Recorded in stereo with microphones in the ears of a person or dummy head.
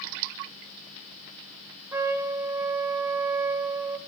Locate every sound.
1.9 s a trumpet: 15° right (ahead or behind), 1.9 m